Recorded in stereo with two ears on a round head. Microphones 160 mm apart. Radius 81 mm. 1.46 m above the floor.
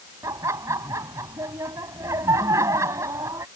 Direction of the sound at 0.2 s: 15° right (ahead or behind).